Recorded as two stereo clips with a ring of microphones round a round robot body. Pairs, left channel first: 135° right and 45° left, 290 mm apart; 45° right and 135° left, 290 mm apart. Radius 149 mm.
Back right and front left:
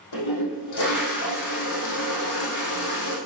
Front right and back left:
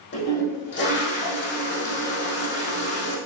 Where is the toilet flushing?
100° right, 5 m.